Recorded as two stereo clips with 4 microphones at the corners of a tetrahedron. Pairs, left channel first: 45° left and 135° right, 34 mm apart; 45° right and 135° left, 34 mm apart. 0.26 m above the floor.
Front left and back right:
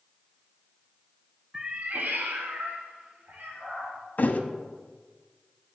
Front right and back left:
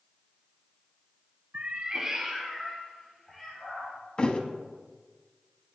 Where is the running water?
I don't hear running water.